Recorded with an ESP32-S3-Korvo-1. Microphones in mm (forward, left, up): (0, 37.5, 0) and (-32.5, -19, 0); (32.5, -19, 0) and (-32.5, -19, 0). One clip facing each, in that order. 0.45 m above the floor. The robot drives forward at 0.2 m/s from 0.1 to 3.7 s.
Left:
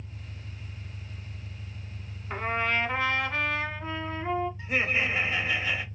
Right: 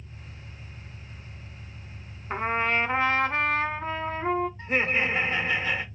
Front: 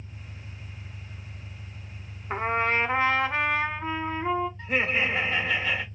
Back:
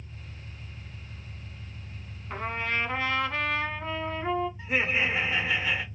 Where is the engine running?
75° left, 1.7 m; by 5.9 s 100° left, 1.7 m.